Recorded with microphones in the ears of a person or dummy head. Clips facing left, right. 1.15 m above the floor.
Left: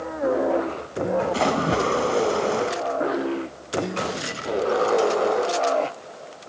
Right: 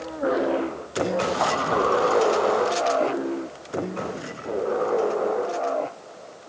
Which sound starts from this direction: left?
A splash, at 1.3 s.